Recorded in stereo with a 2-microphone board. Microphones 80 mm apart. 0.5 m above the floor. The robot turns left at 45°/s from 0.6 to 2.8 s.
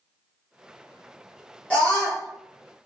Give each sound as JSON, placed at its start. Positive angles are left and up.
{"t": 1.7, "sound": "a scream", "side_deg": 20, "distance_m": 1.3}